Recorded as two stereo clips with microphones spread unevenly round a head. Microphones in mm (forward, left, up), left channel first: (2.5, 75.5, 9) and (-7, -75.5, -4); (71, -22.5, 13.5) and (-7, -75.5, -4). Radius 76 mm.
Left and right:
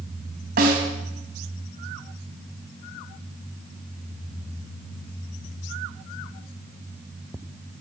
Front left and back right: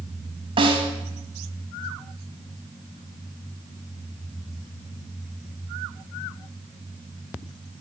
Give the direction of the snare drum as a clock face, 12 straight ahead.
4 o'clock.